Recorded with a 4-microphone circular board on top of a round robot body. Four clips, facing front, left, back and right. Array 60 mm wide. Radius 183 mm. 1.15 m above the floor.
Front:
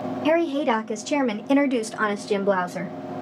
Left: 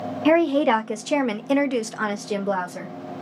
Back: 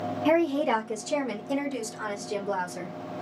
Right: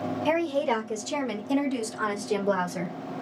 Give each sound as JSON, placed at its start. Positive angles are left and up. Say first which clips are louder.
{"t": 0.2, "sound": "a woman speaking", "louder": "left 8 dB, front 2 dB", "azimuth_deg": 80, "distance_m": 1.2}